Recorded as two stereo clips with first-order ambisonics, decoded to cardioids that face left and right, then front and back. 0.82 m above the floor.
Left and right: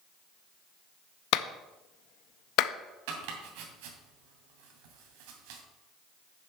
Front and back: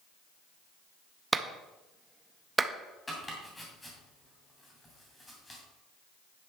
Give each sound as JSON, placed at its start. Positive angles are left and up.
{"t": 1.3, "sound": "a clap", "azimuth_deg": 105, "distance_m": 0.6}
{"t": 3.1, "sound": "chopping", "azimuth_deg": -80, "distance_m": 2.5}